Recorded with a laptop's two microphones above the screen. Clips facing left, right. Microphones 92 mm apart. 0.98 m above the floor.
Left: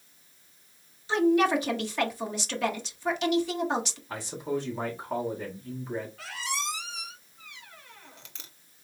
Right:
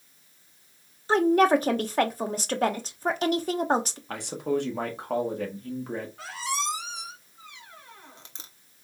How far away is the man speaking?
About 1.3 m.